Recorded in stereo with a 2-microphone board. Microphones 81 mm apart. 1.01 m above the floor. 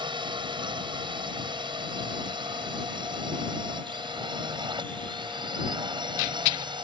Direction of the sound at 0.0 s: 75° right (ahead or behind).